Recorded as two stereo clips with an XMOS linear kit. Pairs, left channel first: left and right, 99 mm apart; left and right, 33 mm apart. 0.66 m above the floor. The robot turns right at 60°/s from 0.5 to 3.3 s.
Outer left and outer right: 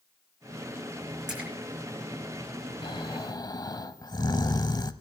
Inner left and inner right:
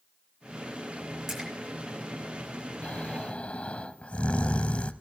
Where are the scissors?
I don't hear scissors.